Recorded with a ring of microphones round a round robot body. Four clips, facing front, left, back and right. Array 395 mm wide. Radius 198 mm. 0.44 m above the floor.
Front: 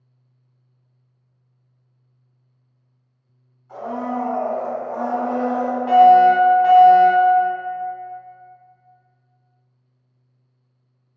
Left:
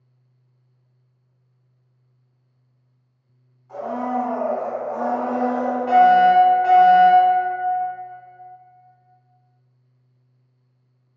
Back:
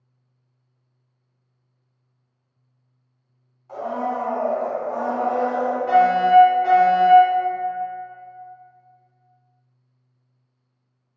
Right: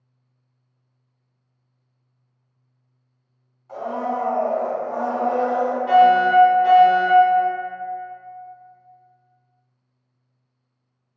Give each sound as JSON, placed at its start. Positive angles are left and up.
{"t": 3.7, "sound": "a blender", "azimuth_deg": -150, "distance_m": 1.9}
{"t": 5.9, "sound": "a fire alarm", "azimuth_deg": 15, "distance_m": 2.0}